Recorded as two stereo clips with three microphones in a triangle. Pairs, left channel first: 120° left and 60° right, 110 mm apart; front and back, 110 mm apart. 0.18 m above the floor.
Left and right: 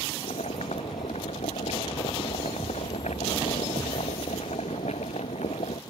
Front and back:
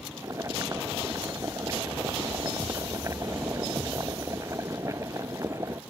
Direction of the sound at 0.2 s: 120° left.